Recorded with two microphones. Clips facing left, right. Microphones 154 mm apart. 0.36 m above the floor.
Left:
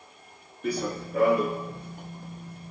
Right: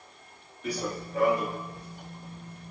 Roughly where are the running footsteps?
Left.